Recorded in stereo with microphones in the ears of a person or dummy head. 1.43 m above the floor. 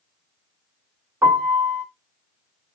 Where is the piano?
10° right (ahead or behind), 1.9 m.